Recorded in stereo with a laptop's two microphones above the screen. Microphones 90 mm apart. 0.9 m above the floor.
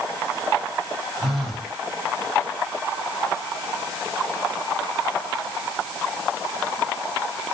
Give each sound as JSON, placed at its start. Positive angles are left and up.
{"t": 1.2, "sound": "a phone buzzing", "side_deg": 0, "distance_m": 1.1}